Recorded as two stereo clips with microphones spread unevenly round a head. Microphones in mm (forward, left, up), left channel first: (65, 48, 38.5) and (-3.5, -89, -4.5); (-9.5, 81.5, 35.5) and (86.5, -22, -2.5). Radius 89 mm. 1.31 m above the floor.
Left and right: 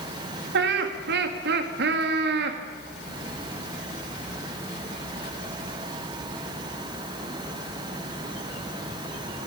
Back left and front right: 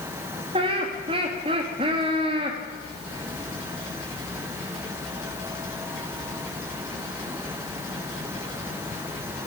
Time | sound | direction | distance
0.5 | laughter | 110° right | 1.8 m